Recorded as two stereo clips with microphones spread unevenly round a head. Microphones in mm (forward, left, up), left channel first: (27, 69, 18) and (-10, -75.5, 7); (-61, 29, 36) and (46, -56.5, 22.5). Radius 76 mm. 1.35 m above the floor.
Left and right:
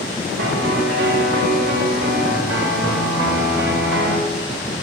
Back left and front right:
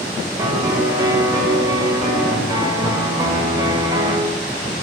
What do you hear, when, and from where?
0.4 s a piano: 105° right, 0.6 m